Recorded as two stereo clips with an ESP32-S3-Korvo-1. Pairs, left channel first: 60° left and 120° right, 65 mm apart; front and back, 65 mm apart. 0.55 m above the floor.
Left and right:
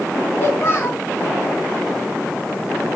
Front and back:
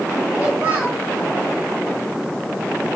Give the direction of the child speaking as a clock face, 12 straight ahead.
8 o'clock.